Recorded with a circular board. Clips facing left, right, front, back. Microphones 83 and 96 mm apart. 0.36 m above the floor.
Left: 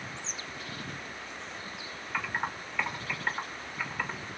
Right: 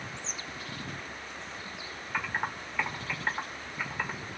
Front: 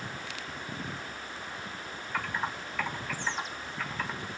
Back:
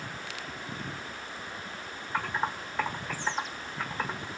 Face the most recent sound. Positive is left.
turn(degrees=-155)